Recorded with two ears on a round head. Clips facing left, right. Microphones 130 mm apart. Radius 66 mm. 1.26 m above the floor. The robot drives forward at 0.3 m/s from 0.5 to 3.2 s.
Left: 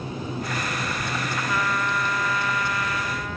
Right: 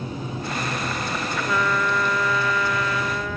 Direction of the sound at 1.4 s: 85° right.